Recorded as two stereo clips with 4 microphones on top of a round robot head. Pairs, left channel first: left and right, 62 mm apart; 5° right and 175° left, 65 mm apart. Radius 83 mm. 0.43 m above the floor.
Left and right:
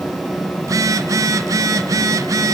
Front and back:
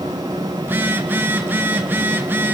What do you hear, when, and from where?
0.6 s a phone buzzing: 120° right, 1.7 m